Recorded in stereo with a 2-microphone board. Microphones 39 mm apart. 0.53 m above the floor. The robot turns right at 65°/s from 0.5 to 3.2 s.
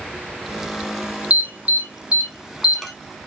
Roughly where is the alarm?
Right.